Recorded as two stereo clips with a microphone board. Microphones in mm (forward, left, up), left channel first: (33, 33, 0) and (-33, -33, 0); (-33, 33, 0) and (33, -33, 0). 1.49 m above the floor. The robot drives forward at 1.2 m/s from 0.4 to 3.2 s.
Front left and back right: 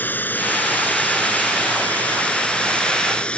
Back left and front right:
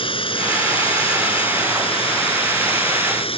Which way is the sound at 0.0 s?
115° left.